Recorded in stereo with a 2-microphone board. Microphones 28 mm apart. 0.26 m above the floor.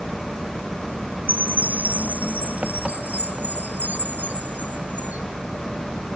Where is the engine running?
35° right (ahead or behind).